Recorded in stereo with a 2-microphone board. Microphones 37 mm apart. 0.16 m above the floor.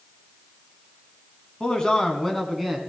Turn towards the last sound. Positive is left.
turn(degrees=0)  # may be behind; listen again after turning